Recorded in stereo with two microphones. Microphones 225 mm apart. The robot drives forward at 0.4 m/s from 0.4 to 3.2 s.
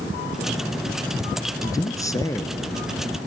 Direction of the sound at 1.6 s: 15° left (ahead or behind).